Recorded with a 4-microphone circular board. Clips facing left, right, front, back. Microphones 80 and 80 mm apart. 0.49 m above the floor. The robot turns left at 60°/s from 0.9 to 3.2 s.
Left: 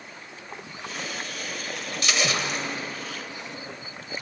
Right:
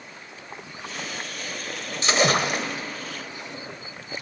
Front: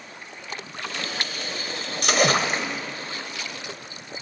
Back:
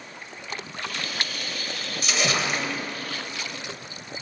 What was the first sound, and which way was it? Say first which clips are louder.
A splash: right 6 dB, front 5 dB; 30° right.